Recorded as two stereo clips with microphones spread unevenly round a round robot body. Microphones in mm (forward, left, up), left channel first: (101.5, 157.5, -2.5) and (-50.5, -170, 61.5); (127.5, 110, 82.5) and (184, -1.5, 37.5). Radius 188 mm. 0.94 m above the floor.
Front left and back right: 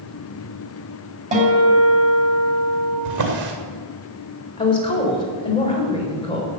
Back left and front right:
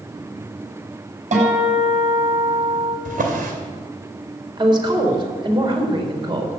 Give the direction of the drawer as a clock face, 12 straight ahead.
2 o'clock.